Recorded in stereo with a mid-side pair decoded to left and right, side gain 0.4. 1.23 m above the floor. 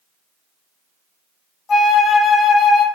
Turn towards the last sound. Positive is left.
turn(degrees=60)